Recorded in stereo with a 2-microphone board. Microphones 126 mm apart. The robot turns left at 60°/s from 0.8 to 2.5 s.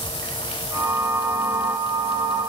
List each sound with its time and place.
Only background noise.